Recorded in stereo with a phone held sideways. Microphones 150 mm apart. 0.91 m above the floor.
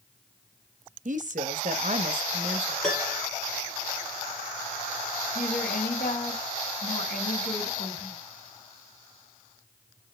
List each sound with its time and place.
1.1 s a woman speaking: 60° right (ahead or behind), 0.8 m
2.8 s a piano: 5° left (ahead or behind), 2.5 m
5.3 s a woman speaking: 75° left (ahead or behind), 2.5 m